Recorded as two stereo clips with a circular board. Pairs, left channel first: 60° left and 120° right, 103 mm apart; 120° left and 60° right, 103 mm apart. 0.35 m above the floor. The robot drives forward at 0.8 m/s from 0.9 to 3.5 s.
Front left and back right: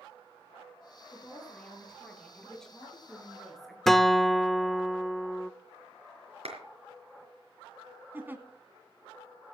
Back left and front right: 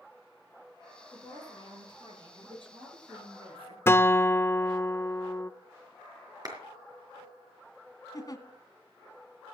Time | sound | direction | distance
1.1 | a woman speaking | 20° right | 7.5 m
3.9 | a guitar | 145° left | 0.5 m
6.5 | a clap | 110° right | 4.5 m
8.1 | a giggle | 170° left | 1.6 m